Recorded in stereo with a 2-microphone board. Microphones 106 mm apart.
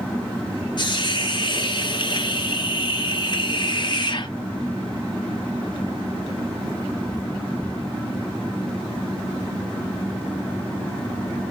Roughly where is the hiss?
Left.